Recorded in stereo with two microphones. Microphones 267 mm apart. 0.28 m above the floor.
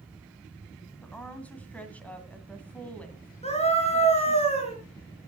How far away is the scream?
About 4 m.